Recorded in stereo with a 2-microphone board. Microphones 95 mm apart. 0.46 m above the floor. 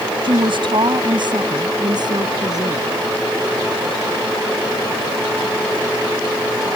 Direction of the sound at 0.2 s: 65° right (ahead or behind).